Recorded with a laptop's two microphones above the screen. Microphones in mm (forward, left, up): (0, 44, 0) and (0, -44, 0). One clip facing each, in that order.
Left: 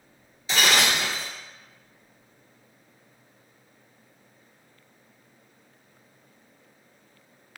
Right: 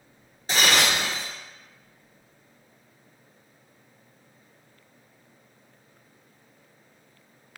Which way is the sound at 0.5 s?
45° right (ahead or behind).